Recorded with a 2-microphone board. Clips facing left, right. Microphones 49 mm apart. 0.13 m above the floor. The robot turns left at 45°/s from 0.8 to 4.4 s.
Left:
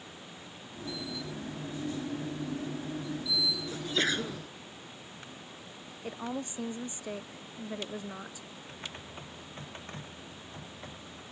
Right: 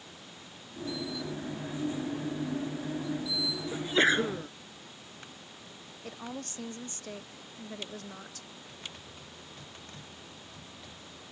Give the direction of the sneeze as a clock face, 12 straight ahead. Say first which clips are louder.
Right 7 dB; 1 o'clock.